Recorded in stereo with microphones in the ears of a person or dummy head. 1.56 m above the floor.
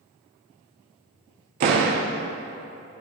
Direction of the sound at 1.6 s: 35° right (ahead or behind).